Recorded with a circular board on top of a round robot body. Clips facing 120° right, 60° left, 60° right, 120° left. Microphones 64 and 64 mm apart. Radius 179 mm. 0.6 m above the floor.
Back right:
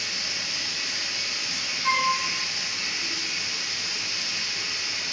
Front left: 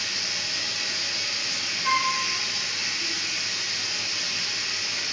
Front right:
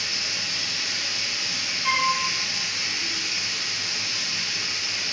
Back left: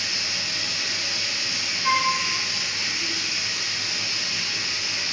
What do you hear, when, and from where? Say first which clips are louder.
0.0 s running water: front left 1 dB, back left 1 dB; 55° left, 0.7 m
1.8 s a flute: back right 1 dB, back left 1 dB; 165° right, 1.1 m